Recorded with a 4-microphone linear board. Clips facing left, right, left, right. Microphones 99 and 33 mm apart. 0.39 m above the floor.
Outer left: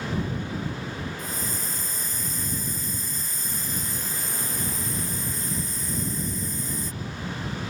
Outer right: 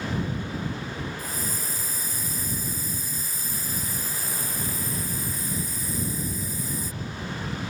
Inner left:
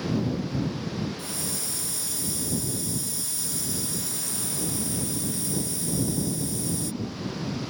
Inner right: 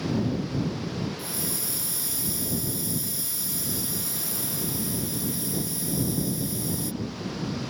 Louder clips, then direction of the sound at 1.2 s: Even, inner right 1 dB; 5° right (ahead or behind).